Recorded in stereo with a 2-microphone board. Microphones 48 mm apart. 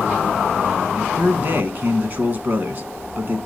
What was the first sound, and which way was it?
A man speaking, 45° right (ahead or behind).